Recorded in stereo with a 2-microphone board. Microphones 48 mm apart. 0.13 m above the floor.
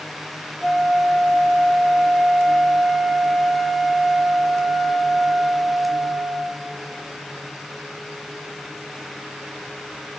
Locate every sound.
0.6 s a flute: 10° left (ahead or behind), 0.6 m